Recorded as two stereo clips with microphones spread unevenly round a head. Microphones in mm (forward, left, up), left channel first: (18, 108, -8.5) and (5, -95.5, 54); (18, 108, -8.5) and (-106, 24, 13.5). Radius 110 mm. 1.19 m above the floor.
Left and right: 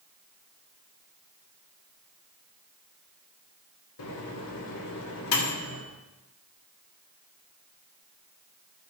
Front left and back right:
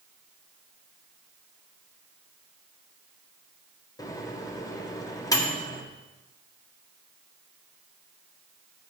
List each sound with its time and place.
4.0 s a microwave: 105° left, 1.6 m